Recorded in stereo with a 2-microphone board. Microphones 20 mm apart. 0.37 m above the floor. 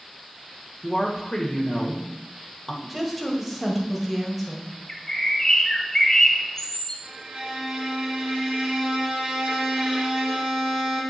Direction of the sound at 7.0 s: 70° right (ahead or behind).